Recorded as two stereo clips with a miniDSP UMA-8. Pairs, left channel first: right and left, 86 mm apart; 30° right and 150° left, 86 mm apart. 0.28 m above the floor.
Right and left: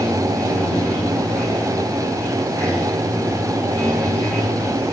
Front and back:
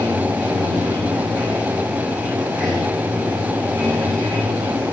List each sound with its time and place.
0.0 s running water: 165° right, 7.5 m